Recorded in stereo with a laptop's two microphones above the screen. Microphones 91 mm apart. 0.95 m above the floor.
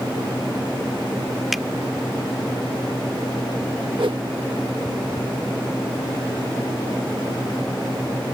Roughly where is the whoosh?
Right.